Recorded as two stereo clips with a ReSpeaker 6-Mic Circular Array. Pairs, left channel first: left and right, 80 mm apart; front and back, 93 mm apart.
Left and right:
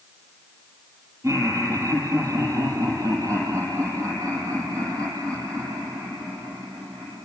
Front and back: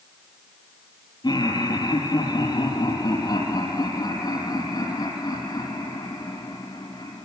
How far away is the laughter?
About 6.5 m.